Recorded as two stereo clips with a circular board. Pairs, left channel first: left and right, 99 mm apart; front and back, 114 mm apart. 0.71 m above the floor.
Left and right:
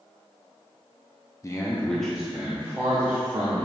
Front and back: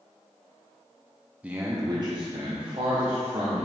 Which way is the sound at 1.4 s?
110° left.